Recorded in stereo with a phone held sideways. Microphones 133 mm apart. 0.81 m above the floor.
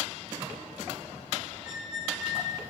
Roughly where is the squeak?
Left.